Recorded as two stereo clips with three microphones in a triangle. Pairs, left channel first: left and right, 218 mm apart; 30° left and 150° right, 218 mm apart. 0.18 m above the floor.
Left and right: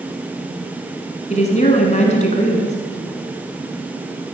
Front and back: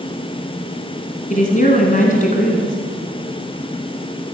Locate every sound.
1.3 s a woman speaking: 55° left, 1.5 m